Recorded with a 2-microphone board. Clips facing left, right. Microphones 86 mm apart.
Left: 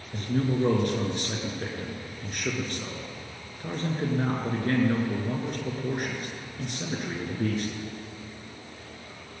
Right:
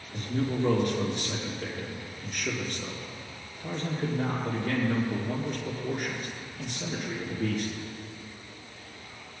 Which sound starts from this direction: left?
A man speaking, at 0.1 s.